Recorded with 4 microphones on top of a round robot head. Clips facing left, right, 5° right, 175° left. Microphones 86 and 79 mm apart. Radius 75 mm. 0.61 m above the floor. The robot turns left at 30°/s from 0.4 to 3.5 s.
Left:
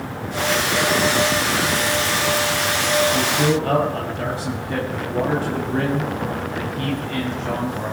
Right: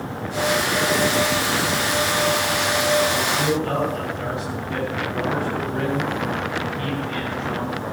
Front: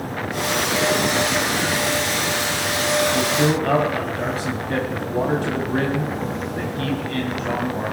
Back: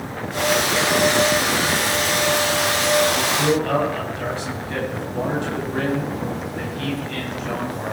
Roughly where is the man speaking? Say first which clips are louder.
Left 2 dB, even; ahead left.